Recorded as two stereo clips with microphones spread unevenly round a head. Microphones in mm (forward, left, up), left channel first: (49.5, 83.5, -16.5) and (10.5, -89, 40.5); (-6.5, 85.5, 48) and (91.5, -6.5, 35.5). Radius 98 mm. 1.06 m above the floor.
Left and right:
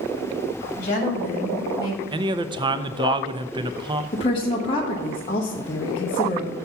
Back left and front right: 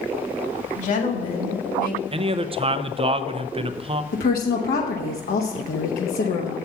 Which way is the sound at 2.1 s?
25° right.